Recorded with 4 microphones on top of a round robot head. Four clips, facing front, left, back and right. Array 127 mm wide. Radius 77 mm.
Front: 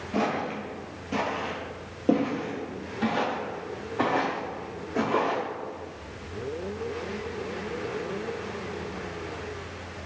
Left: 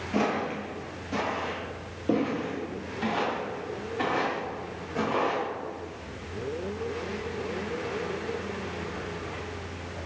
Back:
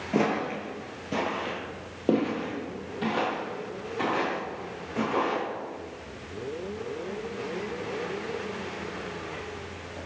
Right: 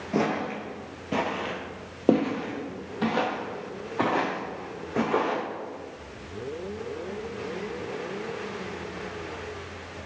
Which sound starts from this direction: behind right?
Footsteps, at 0.1 s.